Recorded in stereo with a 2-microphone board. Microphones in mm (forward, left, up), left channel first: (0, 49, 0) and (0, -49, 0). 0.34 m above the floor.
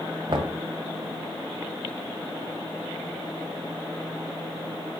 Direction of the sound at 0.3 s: 55° right (ahead or behind).